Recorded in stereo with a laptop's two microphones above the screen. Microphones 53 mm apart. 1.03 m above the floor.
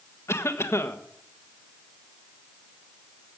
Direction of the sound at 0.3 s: 60° left (ahead or behind).